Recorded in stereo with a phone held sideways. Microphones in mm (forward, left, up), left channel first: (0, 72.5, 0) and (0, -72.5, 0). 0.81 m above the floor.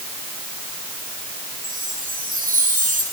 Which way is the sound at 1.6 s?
70° right (ahead or behind).